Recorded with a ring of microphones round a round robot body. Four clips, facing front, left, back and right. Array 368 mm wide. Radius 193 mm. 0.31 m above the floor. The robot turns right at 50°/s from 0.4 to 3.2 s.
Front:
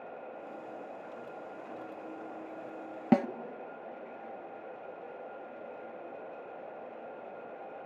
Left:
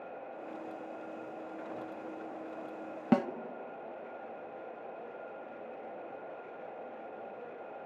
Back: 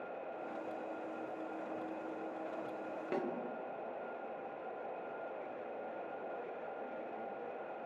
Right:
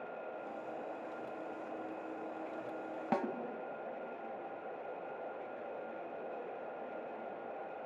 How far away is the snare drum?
About 0.7 m.